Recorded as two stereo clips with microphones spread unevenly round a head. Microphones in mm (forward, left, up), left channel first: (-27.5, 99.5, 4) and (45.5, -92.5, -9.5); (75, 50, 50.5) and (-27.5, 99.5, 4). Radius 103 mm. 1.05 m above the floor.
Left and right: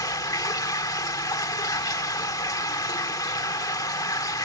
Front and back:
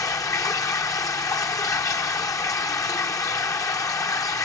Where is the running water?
40° left.